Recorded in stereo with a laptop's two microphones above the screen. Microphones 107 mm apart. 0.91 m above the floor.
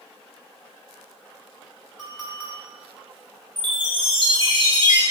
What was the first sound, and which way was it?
A clink, 5° left (ahead or behind).